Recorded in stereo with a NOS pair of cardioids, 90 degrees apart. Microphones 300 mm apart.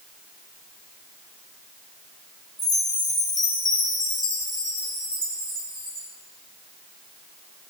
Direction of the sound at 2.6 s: 15° left.